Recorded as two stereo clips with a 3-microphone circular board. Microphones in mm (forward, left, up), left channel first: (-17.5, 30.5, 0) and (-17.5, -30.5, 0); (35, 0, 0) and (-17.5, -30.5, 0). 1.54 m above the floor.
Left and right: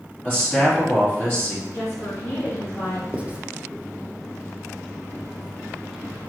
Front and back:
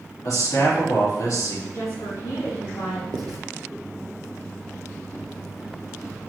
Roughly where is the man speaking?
Ahead left.